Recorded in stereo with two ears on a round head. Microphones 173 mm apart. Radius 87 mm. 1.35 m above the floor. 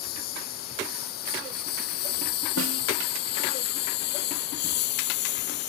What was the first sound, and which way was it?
A lawn mower, 50° left (ahead or behind).